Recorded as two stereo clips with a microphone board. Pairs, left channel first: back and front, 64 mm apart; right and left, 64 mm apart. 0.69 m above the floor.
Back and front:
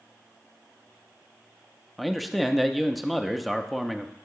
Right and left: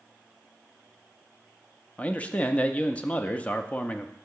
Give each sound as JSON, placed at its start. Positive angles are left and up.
{"t": 2.0, "sound": "a man speaking", "azimuth_deg": -90, "distance_m": 0.5}